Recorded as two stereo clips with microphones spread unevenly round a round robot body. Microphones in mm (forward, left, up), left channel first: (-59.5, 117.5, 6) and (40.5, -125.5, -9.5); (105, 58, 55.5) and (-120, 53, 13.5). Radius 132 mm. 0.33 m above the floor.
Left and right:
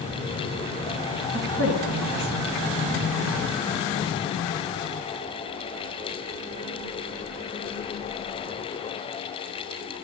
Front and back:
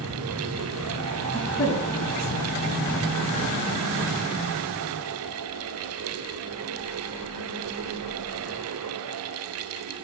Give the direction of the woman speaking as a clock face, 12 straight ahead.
3 o'clock.